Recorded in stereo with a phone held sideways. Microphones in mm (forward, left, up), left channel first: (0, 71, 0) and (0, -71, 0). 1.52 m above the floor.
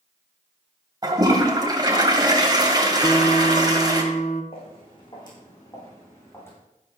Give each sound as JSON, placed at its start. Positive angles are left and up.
{"t": 1.0, "sound": "a toilet flushing", "side_deg": -30, "distance_m": 2.5}
{"t": 3.0, "sound": "a guitar", "side_deg": 50, "distance_m": 1.3}
{"t": 4.5, "sound": "footsteps", "side_deg": 40, "distance_m": 6.5}